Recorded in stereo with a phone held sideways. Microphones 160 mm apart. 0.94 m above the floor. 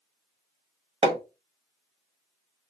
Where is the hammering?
35° right (ahead or behind), 1.0 m.